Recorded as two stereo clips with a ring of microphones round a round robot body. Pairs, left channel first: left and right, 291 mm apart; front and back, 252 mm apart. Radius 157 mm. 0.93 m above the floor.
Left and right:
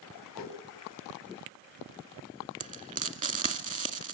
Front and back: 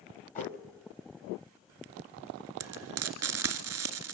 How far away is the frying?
About 2 m.